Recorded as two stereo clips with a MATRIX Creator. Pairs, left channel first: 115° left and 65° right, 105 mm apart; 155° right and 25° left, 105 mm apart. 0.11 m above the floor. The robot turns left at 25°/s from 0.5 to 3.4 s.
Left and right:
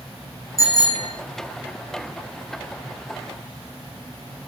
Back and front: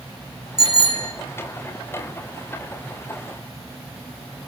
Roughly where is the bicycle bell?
Behind.